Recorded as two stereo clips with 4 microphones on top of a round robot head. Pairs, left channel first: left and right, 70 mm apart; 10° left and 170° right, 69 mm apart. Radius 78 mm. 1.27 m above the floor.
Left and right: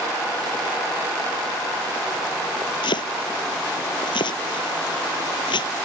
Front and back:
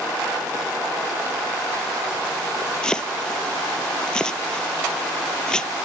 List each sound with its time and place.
2.8 s chopping: 90° left